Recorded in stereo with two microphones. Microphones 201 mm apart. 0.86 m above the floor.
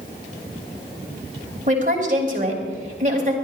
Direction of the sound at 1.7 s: 40° right (ahead or behind).